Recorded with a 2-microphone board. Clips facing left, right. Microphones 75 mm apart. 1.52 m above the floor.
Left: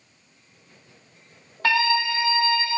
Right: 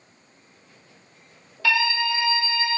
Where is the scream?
40° left (ahead or behind), 1.7 m; by 2.8 s 30° left (ahead or behind), 1.1 m.